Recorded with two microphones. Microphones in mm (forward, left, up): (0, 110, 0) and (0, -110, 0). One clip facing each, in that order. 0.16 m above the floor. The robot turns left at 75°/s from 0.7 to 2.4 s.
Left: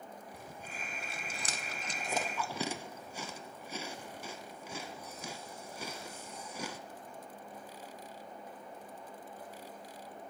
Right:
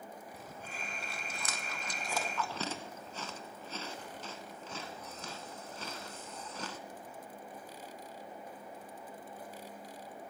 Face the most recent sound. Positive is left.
turn(degrees=15)  # may be behind; listen again after turning